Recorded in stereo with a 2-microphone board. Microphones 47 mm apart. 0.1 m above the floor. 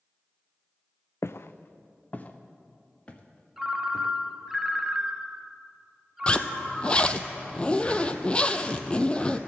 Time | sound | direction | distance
1.2 | footsteps | 70° left (ahead or behind) | 0.5 m
3.6 | a ringtone | 10° right (ahead or behind) | 0.6 m
6.3 | a zipper | 25° left (ahead or behind) | 0.6 m